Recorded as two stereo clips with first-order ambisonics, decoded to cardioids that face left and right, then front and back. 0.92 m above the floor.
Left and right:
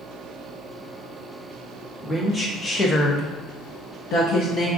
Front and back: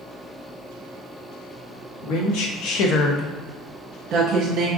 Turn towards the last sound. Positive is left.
turn(degrees=140)